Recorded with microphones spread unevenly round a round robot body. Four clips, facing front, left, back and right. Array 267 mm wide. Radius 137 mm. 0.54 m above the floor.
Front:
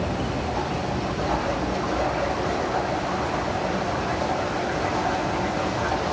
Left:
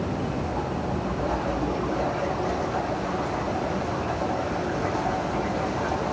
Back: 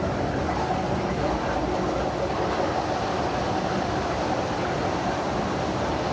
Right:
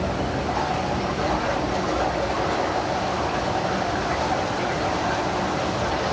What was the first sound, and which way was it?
Only background noise.